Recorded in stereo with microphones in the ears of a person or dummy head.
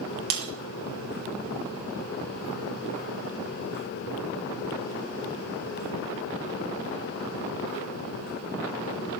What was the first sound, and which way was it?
Breaking glass, 50° right (ahead or behind).